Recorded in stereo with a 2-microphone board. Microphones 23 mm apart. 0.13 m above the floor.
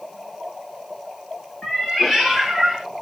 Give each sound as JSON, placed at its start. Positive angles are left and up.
{"t": 1.6, "sound": "a cat meowing", "side_deg": 25, "distance_m": 1.2}